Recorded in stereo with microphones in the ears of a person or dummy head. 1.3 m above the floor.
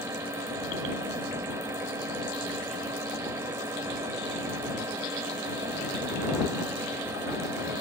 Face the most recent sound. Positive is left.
turn(degrees=-10)  # may be behind; listen again after turning